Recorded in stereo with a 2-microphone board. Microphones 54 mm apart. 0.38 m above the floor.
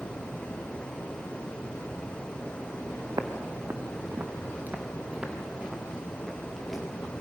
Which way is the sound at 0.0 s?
20° left (ahead or behind).